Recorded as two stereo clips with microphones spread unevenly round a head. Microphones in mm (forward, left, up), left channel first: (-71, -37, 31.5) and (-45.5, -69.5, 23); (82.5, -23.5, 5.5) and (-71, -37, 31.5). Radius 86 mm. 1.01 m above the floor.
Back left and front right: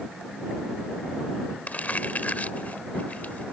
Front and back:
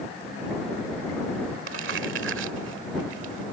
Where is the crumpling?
175° left.